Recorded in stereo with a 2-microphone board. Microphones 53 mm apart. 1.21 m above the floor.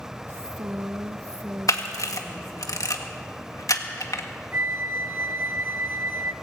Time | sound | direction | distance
0.3 | a woman speaking | 45° right (ahead or behind) | 0.7 m
1.7 | a camera shutter | 80° left | 1.6 m
4.5 | a flute | 45° right (ahead or behind) | 0.7 m